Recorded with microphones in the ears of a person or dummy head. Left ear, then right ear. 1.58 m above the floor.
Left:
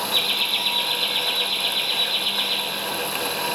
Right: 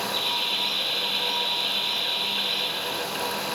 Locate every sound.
0.1 s laughter: 80° left, 6 m; by 2.6 s 55° left (ahead or behind), 5 m